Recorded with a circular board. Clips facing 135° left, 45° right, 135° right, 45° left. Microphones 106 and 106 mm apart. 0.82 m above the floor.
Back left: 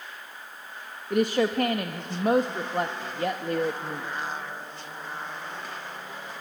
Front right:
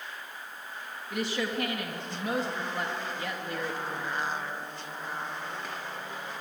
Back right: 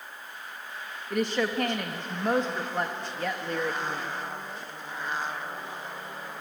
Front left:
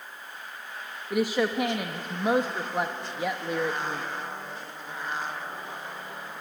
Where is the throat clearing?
No throat clearing in this recording.